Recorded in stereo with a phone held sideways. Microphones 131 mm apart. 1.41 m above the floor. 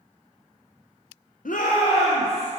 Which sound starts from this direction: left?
A shout, at 1.4 s.